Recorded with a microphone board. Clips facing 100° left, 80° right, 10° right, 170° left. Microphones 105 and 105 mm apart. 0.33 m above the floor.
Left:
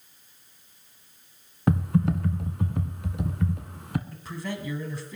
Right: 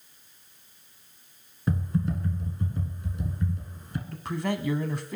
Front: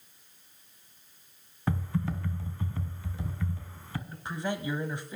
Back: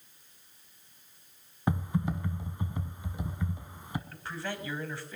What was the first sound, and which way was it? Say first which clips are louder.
Typing on a keyboard: left 5 dB, back 1 dB; 100° left.